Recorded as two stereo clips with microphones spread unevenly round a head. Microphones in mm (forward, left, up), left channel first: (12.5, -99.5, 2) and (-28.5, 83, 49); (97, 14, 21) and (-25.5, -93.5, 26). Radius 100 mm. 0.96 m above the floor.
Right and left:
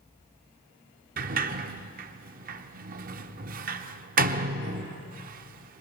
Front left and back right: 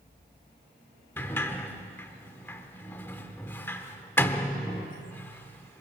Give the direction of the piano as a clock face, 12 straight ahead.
No piano in this recording.